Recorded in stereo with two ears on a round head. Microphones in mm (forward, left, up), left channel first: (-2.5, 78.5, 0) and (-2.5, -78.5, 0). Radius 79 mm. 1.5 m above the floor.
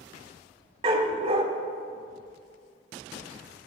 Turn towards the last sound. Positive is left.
turn(degrees=-30)  # may be behind; listen again after turning